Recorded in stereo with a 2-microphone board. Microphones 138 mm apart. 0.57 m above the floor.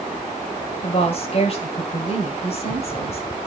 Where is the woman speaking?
45° left (ahead or behind), 2.5 m.